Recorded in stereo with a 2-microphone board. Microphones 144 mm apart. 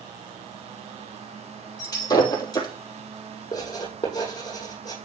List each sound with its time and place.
1.8 s breaking glass: 25° left (ahead or behind), 4 m
3.5 s writing: 25° left (ahead or behind), 7.5 m